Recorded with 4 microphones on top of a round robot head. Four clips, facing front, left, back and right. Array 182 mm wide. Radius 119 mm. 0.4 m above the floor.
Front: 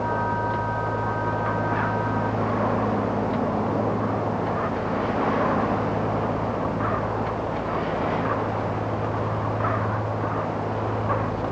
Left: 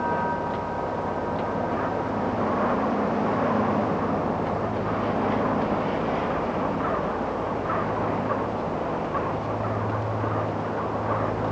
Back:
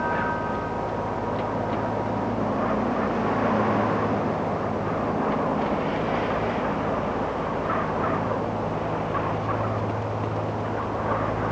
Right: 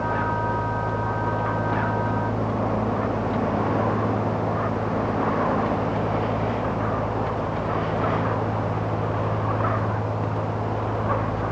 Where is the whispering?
No whispering in this recording.